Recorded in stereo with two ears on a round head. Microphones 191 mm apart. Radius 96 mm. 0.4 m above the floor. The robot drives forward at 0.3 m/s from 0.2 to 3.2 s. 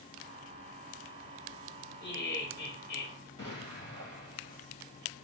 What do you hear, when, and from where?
2.0 s laughter: 50° left (ahead or behind), 1.9 m
3.4 s an explosion: 20° left (ahead or behind), 4.5 m